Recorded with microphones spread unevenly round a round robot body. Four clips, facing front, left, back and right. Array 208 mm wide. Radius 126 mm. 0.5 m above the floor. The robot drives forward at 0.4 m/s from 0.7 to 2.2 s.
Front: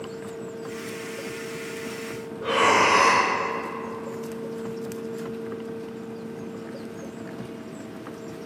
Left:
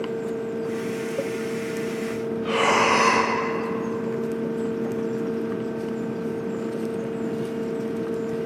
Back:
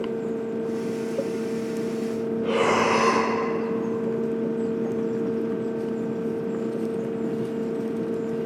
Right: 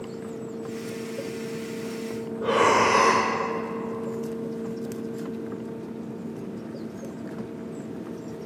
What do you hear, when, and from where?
2.4 s breathing: 110° right, 0.7 m